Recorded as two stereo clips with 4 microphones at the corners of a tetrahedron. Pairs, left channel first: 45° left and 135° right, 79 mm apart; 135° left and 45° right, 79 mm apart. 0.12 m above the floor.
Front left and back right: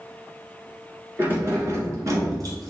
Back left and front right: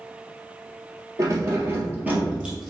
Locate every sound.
1.2 s keys jangling: 80° right, 1.5 m; by 2.7 s 130° right, 1.5 m